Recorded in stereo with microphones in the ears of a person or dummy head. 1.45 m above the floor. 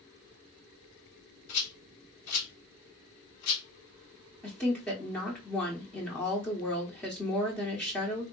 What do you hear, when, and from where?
1.5 s a rattle: 85° left, 1.1 m
4.4 s a woman speaking: 10° left (ahead or behind), 0.7 m